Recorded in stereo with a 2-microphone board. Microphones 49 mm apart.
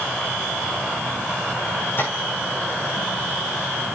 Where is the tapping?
45° left (ahead or behind), 9.5 m.